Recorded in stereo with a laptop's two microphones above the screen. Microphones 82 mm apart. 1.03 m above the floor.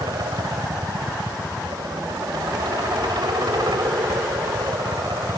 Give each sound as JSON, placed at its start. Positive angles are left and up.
{"t": 0.0, "sound": "a helicopter", "side_deg": -65}